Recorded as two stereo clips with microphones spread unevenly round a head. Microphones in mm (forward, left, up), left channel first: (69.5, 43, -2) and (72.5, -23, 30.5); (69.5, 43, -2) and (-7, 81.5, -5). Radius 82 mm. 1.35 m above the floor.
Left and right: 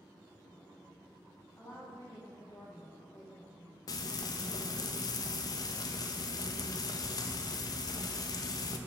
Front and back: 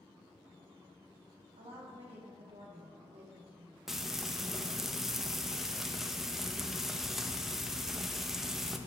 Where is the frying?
65° left, 0.6 m.